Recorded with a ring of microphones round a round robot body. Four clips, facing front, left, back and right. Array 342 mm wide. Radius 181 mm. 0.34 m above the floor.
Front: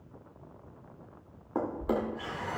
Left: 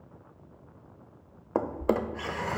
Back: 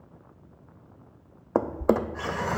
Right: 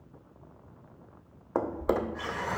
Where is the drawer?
165° left, 0.5 m.